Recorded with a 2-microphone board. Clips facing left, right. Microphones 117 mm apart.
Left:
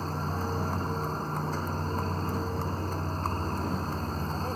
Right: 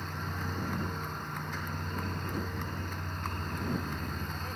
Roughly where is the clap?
No clap in this recording.